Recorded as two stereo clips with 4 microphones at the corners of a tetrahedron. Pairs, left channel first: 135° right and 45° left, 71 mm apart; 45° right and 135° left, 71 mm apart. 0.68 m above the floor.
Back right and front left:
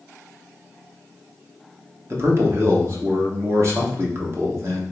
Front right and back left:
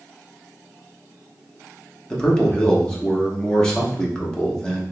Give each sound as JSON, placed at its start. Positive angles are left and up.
{"t": 2.1, "sound": "a man speaking", "azimuth_deg": 25, "distance_m": 0.9}